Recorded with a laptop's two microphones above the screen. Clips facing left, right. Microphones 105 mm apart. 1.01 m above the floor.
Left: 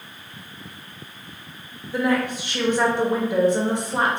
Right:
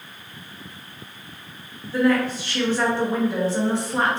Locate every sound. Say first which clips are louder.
1.9 s a woman speaking: right 2 dB; 15° left (ahead or behind), 0.9 m